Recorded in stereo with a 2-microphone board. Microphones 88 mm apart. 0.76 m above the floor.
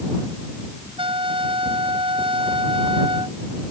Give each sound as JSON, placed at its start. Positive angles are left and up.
{"t": 1.0, "sound": "a trumpet", "side_deg": -85}